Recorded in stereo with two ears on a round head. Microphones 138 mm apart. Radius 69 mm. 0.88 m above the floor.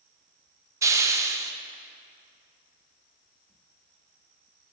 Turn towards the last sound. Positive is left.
turn(degrees=-20)  # may be behind; listen again after turning